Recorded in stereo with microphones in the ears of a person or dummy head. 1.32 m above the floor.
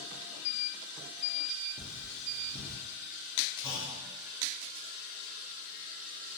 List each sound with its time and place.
1.8 s cutlery clinking: 55° right (ahead or behind), 1.0 m
3.6 s a clunk: 15° left (ahead or behind), 0.6 m